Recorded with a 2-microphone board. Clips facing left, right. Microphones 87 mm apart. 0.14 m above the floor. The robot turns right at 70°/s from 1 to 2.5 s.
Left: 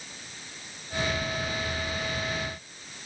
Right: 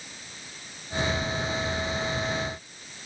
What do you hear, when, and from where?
Only background noise.